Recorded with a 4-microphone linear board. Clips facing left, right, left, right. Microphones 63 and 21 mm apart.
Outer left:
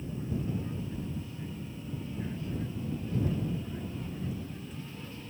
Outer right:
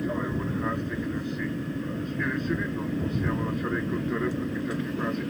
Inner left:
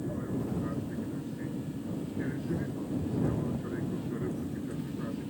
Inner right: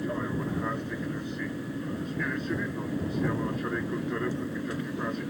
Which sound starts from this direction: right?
An aircraft, at 0.0 s.